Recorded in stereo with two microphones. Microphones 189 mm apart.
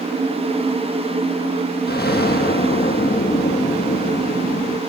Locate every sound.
1.9 s an explosion: 60° left (ahead or behind), 0.9 m